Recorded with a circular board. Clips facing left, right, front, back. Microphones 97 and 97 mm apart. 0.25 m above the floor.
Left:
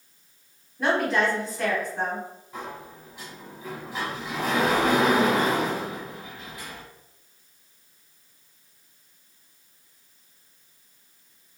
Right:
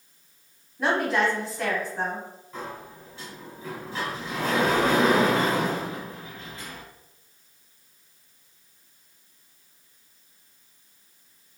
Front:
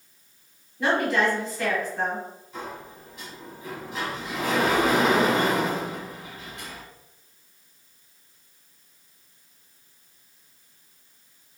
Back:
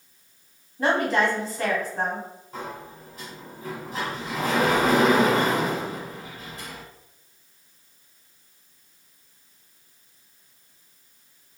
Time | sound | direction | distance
0.8 | a woman speaking | 175° right | 1.4 m
2.5 | a sliding door | 160° left | 1.2 m